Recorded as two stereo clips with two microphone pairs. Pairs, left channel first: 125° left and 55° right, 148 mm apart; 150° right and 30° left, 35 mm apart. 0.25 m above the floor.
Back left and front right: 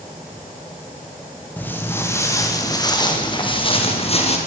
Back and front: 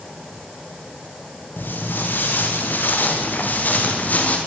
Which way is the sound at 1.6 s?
155° right.